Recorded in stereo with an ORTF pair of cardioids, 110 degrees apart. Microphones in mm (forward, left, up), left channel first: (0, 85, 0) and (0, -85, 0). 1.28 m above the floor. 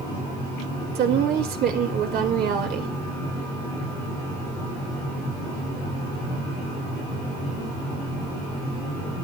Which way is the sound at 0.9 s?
65° right.